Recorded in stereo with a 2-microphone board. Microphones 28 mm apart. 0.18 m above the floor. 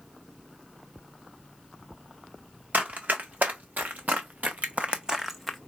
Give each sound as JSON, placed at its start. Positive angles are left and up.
{"t": 2.7, "sound": "running footsteps", "side_deg": -80, "distance_m": 1.4}